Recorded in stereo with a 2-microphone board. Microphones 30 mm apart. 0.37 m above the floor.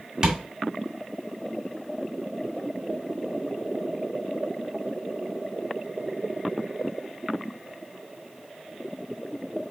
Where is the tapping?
30° right (ahead or behind), 1.6 m.